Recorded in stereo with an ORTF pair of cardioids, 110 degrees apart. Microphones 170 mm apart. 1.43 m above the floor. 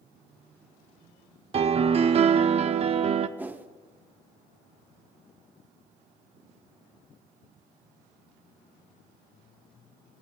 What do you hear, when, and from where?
1.5 s a piano: 35° right, 0.6 m
3.4 s a whoosh: 10° right, 0.9 m